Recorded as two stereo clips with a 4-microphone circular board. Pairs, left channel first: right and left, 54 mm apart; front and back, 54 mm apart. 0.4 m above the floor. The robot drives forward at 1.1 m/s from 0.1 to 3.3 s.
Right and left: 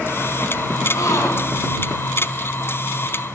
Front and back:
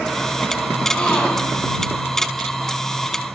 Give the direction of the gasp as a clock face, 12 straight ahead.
2 o'clock.